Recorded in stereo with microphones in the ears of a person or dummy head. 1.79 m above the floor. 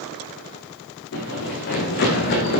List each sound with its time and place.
1.1 s running footsteps: 55° left (ahead or behind), 5 m; by 2.6 s 50° left (ahead or behind), 4 m